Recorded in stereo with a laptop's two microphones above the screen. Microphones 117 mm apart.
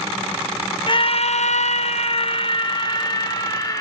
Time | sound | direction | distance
0.9 | a scream | 40° left (ahead or behind) | 0.8 m